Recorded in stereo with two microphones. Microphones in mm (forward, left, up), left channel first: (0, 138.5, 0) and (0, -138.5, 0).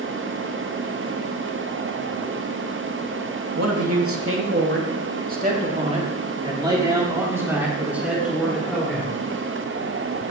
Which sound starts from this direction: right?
A man speaking, at 3.5 s.